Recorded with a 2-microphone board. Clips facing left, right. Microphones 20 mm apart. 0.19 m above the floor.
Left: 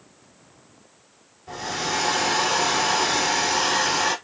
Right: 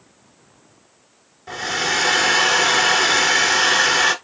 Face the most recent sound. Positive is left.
turn(degrees=-50)  # may be behind; listen again after turning